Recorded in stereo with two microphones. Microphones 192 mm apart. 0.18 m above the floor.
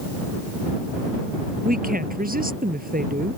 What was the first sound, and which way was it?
A woman speaking, 50° right (ahead or behind).